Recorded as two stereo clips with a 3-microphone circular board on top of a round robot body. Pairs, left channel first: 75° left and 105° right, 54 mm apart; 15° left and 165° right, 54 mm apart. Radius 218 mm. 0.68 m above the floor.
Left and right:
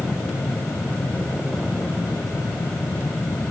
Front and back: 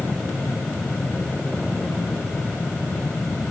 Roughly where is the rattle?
No rattle in this recording.